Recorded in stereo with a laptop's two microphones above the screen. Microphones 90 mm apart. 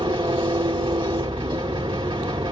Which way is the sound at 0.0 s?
70° right (ahead or behind).